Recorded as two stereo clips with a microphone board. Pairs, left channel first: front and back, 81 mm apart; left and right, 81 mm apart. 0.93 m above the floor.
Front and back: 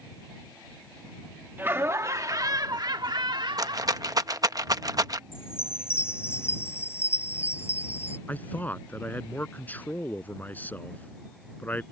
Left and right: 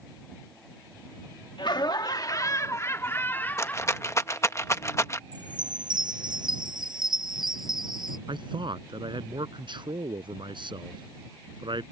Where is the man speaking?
70° right.